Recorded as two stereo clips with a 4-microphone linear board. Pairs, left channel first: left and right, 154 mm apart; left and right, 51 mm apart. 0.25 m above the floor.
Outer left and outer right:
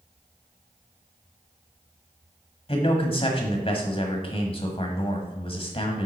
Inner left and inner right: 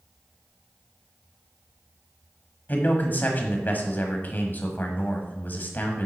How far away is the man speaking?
About 1.3 m.